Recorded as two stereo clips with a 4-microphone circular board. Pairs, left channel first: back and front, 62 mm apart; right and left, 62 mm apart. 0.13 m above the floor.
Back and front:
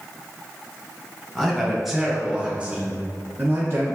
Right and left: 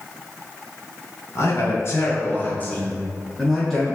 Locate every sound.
1.4 s a man speaking: 100° right, 1.7 m; by 4.0 s 10° left, 1.4 m